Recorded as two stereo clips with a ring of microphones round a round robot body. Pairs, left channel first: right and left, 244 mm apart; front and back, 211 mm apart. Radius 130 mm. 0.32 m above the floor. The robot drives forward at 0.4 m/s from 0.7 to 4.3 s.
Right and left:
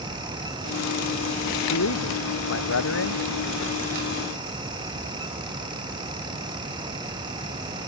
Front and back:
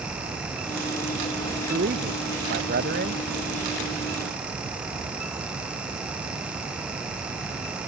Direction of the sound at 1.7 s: 125° right.